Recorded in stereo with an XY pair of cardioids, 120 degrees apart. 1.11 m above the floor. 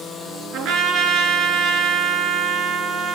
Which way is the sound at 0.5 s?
70° right.